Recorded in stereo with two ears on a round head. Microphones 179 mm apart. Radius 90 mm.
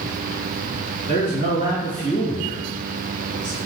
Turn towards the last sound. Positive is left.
turn(degrees=40)  # may be behind; listen again after turning